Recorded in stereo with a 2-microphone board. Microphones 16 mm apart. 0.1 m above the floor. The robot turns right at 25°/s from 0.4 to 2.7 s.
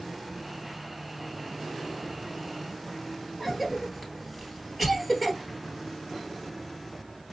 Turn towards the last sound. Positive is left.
turn(degrees=0)  # may be behind; listen again after turning